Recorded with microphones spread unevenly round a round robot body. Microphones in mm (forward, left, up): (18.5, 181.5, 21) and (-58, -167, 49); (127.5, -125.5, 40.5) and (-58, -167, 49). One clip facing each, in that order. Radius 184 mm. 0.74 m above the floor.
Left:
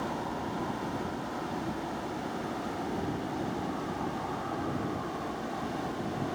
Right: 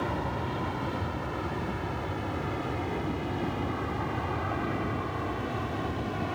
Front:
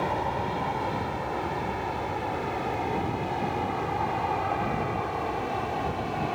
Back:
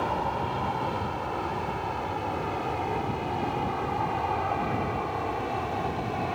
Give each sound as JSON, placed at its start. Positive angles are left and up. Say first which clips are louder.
{"t": 0.0, "sound": "an aircraft", "louder": "right 2 dB, front 1 dB", "azimuth_deg": -70}